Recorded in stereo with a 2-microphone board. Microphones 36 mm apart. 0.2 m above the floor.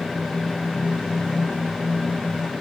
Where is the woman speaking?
I don't hear a woman speaking.